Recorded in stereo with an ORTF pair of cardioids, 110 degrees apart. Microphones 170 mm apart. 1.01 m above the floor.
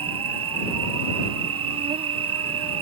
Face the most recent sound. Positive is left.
turn(degrees=-35)